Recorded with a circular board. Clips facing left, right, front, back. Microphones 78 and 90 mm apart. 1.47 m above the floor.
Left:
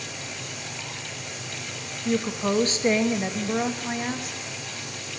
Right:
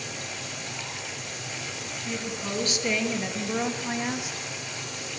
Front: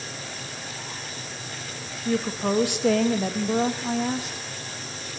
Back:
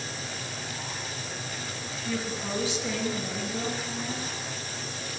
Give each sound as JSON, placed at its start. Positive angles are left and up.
{"t": 2.0, "sound": "a woman speaking", "azimuth_deg": 45, "distance_m": 2.5}